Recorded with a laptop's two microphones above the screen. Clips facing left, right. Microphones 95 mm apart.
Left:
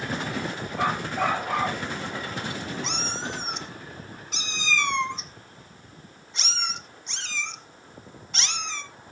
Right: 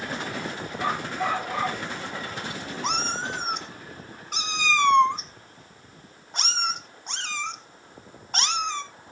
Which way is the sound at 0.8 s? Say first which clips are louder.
Left 2 dB; 85° left.